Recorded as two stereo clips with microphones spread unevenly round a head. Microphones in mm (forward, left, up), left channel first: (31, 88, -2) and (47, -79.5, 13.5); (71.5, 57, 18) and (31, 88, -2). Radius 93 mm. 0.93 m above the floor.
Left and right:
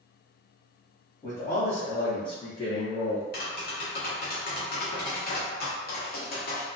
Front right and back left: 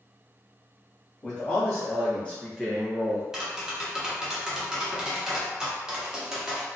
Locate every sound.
1.2 s a man speaking: 30° left, 1.6 m; by 3.2 s 160° left, 0.7 m
3.3 s tapping: 65° left, 1.0 m